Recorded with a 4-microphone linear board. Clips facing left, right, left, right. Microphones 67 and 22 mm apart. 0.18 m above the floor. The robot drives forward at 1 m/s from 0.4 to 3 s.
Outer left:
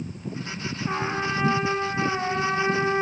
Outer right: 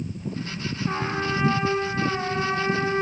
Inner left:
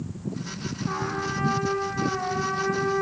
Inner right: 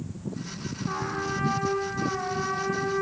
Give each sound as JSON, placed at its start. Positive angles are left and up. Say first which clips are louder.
{"t": 0.9, "sound": "a trumpet", "louder": "even, inner left 1 dB", "side_deg": 5, "distance_m": 4.0}